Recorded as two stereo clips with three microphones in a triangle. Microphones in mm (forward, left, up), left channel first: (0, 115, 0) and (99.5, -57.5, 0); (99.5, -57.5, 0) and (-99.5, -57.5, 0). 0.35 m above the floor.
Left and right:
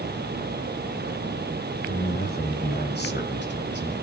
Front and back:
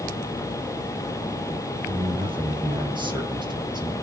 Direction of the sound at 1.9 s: 130° left.